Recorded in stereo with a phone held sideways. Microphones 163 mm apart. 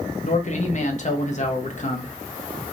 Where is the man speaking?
50° left (ahead or behind), 0.7 m.